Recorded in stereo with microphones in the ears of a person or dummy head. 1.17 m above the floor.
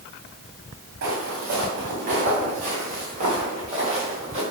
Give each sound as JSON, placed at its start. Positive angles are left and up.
{"t": 1.0, "sound": "footsteps", "side_deg": -55, "distance_m": 5.5}